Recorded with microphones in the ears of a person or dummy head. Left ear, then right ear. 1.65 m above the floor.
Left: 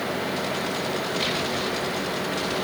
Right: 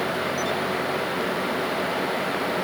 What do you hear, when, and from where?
Only background noise.